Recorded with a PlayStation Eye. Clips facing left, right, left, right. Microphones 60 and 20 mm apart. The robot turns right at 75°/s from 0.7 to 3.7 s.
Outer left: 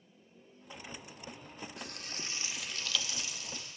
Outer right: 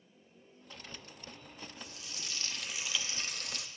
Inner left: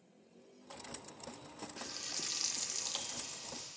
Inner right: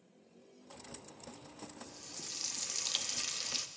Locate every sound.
1.8 s frying: 115° left, 0.6 m; by 3.7 s 105° right, 0.6 m